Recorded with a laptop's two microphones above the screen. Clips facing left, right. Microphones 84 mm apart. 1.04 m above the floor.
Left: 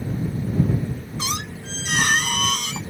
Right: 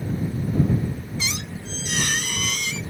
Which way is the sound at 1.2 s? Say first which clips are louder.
Left 2 dB; 50° left (ahead or behind).